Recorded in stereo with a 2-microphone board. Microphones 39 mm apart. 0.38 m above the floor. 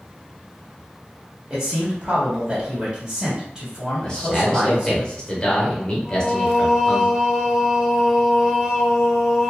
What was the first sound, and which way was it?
A man speaking, 15° right (ahead or behind).